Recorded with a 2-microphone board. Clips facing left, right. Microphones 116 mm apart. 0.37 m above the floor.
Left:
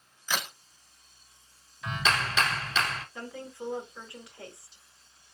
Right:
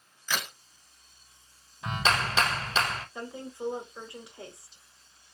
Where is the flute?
No flute in this recording.